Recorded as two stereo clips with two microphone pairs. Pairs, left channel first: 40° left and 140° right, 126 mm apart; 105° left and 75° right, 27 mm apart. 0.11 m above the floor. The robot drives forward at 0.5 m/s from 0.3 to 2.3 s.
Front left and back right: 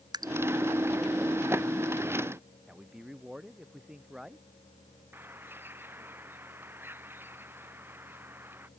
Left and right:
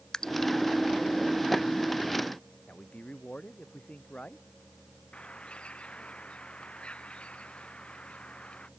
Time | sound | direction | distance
0.1 | dripping | 165° left | ?
2.7 | a man speaking | 135° left | ?
5.1 | a bird | 150° left | ?